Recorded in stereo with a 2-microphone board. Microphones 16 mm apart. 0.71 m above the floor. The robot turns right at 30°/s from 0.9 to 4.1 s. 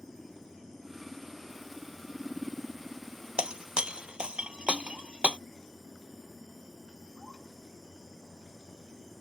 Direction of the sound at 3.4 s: 65° right (ahead or behind).